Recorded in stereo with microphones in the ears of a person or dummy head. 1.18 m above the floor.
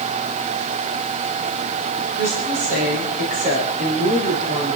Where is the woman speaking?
55° right (ahead or behind), 6 m; by 4.8 s 30° right (ahead or behind), 4 m.